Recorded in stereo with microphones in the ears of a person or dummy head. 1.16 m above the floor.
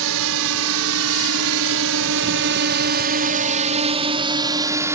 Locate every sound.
0.0 s a drone: 70° right (ahead or behind); by 5.0 s 15° right (ahead or behind)